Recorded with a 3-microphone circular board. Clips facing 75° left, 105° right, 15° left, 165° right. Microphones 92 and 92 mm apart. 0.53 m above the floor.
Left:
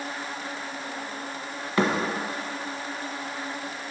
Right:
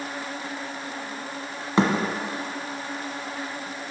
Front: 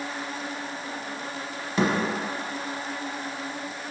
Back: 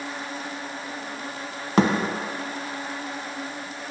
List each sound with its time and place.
1.8 s a thud: 170° right, 0.8 m